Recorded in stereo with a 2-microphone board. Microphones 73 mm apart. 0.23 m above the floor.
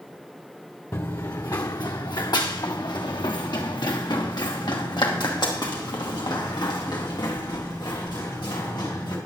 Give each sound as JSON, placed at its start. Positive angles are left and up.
{"t": 0.9, "sound": "running footsteps", "side_deg": 40, "distance_m": 1.2}